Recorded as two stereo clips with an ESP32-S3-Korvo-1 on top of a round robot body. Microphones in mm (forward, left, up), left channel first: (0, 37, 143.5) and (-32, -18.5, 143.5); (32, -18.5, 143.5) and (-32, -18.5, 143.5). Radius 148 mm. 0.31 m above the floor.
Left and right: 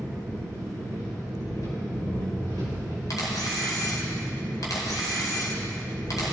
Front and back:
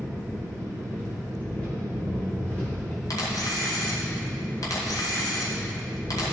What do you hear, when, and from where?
0.0 s an engine running: 70° left, 3.5 m
3.1 s a camera shutter: 30° left, 1.8 m